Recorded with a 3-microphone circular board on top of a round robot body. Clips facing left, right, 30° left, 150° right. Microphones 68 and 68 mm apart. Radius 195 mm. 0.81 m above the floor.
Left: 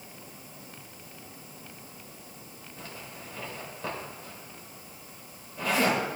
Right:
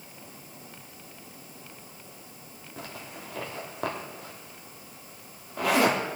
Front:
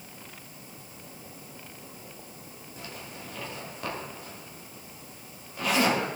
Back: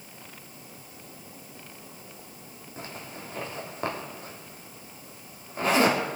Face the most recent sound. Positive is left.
turn(degrees=-95)